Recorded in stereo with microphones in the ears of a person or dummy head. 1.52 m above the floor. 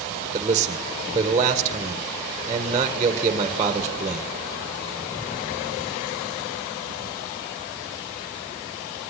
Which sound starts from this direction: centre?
A man speaking, at 0.3 s.